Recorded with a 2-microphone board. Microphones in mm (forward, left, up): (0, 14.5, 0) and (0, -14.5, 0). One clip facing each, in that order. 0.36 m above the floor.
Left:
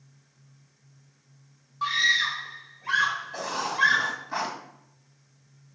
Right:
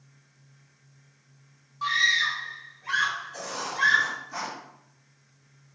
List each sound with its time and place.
1.8 s a scream: 15° left (ahead or behind), 1.0 m
3.3 s writing: 50° left (ahead or behind), 2.0 m